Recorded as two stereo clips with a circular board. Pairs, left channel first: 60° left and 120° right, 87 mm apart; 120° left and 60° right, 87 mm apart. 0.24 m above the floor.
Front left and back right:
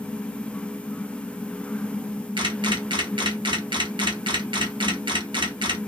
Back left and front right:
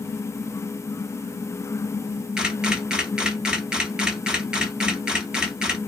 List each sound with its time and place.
2.4 s a camera shutter: 140° right, 1.1 m